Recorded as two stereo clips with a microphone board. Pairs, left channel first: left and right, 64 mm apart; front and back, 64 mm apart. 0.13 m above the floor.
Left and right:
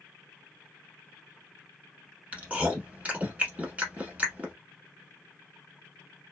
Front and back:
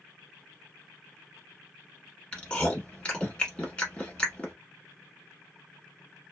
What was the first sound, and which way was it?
Chewing, 55° right.